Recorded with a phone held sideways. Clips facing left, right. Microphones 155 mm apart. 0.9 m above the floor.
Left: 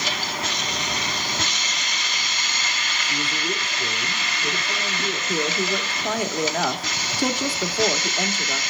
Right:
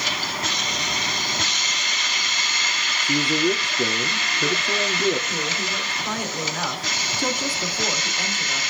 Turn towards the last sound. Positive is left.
turn(degrees=75)  # may be behind; listen again after turning